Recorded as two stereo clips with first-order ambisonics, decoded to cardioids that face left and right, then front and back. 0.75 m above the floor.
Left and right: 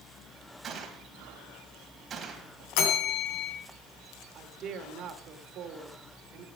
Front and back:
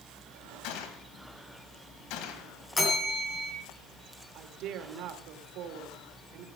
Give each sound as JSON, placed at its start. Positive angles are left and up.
{"t": 0.6, "sound": "a gunshot", "azimuth_deg": -25, "distance_m": 1.9}
{"t": 2.8, "sound": "a bell", "azimuth_deg": 75, "distance_m": 3.0}
{"t": 4.3, "sound": "a woman speaking", "azimuth_deg": -140, "distance_m": 1.8}